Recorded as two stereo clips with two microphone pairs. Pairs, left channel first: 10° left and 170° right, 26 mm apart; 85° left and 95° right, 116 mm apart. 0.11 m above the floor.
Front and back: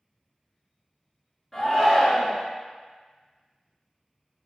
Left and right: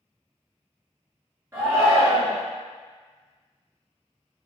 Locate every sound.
1.5 s a shout: 55° right, 1.3 m